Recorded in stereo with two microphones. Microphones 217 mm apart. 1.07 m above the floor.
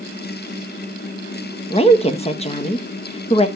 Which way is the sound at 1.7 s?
30° left (ahead or behind).